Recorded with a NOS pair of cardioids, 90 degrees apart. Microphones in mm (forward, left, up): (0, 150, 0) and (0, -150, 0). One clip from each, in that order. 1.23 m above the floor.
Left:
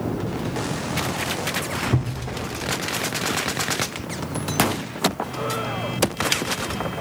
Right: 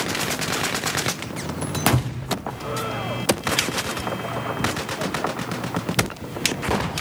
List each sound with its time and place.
1.9 s a thud: 10° right, 1.6 m